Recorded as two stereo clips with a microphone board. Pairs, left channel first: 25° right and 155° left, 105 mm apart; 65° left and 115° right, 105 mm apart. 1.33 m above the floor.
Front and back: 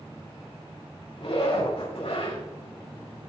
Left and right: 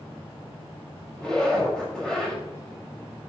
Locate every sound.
1.2 s a zipper: 15° right, 4.5 m